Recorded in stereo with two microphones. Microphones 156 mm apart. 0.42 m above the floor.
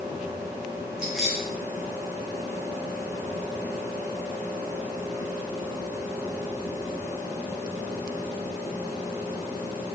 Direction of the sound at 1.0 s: 5° right (ahead or behind).